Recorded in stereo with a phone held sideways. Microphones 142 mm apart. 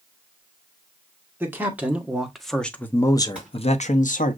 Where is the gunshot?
10° right (ahead or behind), 3 m.